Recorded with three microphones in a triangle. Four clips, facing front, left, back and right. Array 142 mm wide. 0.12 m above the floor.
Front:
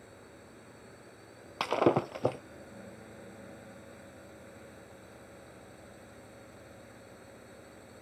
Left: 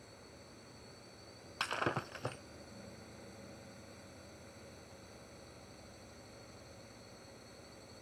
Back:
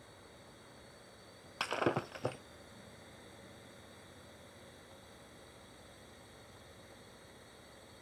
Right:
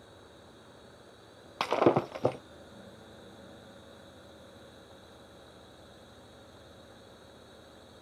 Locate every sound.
0.0 s a drone: 20° right
1.6 s breaking glass: 60° right